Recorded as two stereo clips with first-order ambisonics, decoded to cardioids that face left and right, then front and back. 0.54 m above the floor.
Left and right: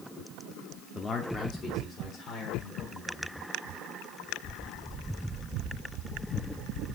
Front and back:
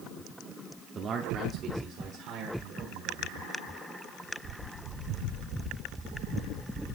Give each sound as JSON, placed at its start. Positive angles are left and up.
{"t": 0.9, "sound": "a man speaking", "azimuth_deg": 155, "distance_m": 0.8}